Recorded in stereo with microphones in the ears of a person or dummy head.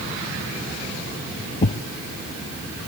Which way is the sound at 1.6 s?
30° left (ahead or behind).